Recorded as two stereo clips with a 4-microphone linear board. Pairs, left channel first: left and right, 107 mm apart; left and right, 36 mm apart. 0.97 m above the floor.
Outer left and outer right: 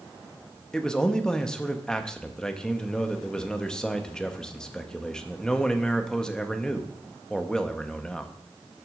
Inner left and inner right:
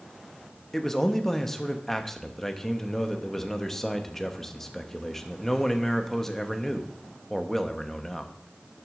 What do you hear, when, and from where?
0.7 s a man speaking: 5° left (ahead or behind), 0.9 m